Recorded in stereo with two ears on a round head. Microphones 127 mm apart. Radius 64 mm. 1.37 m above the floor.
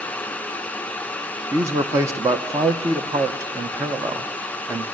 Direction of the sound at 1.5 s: 20° right (ahead or behind).